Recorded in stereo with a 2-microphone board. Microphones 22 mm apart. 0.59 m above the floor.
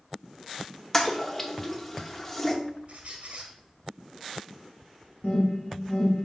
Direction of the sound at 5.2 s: 60° left (ahead or behind).